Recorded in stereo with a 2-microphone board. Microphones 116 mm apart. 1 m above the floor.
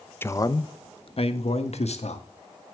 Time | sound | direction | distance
0.2 | a man speaking | 20° left (ahead or behind) | 0.7 m